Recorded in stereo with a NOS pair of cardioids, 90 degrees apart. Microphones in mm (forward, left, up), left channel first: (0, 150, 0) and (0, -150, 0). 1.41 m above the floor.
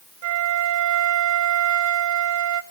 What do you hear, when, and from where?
0.2 s a flute: 65° right, 0.8 m